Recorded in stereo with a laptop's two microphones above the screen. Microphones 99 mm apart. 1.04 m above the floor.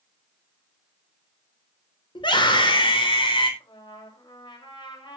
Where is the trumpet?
60° left (ahead or behind), 2.5 m.